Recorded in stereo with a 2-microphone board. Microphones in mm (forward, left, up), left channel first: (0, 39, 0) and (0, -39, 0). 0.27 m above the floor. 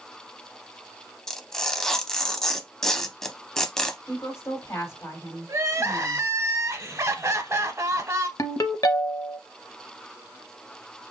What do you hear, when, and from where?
1.3 s tearing paper: 5° left (ahead or behind), 0.5 m
4.1 s a woman speaking: 35° left (ahead or behind), 1.4 m
5.5 s crying: 40° right (ahead or behind), 0.6 m
8.4 s a ringtone: 45° left (ahead or behind), 0.6 m